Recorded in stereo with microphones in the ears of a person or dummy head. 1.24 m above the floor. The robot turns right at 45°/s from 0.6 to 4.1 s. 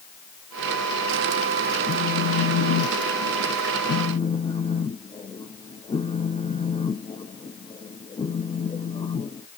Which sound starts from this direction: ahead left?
A phone buzzing, at 1.9 s.